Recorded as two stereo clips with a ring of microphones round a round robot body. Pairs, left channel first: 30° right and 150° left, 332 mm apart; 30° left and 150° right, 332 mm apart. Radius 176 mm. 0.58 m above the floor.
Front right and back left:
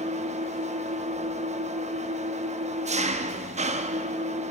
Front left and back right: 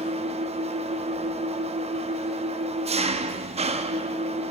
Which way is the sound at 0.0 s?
175° left.